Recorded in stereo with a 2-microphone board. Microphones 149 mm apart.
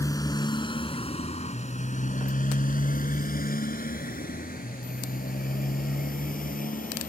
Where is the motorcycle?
25° left (ahead or behind); by 7.1 s 70° left (ahead or behind).